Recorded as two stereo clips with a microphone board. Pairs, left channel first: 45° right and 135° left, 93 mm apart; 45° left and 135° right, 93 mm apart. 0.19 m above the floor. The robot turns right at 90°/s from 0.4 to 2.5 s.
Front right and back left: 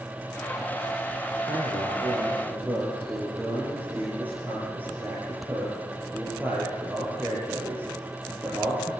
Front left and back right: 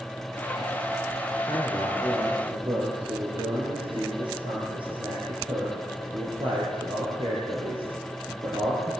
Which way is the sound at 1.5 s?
110° left.